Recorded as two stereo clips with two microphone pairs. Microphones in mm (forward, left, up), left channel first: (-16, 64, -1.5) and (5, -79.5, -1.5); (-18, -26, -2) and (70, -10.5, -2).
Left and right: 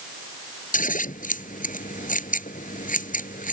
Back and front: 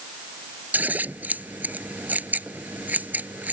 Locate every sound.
0.7 s scissors: 80° left